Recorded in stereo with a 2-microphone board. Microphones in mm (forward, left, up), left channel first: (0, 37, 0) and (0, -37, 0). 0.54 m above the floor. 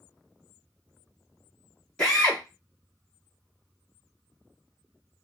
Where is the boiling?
No boiling in this recording.